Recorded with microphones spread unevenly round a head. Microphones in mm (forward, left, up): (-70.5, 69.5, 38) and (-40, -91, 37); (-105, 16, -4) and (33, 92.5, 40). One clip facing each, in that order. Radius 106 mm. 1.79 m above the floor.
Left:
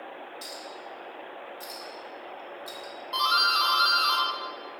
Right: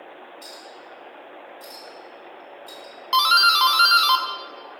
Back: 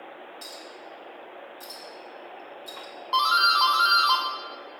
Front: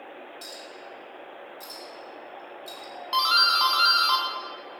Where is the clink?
110° left, 3 m.